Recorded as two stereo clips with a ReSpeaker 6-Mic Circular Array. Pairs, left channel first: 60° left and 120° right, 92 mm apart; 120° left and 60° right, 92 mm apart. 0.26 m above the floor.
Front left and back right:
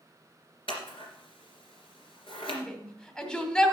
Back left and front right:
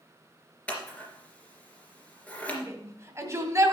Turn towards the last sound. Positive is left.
turn(degrees=-20)